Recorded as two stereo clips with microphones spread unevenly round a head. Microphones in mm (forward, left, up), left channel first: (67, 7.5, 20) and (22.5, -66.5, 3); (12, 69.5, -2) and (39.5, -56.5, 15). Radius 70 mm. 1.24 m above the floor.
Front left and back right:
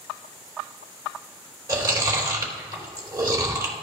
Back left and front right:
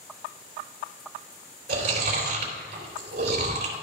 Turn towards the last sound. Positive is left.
turn(degrees=-70)